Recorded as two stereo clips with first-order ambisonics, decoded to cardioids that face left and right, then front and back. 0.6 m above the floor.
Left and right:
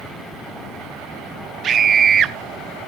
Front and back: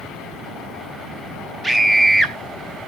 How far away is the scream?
About 0.6 m.